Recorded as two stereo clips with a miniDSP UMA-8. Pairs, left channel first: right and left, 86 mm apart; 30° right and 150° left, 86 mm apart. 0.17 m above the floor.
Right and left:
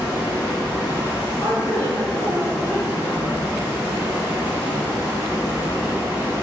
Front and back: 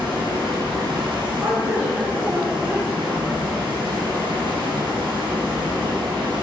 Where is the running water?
160° left, 1.7 m.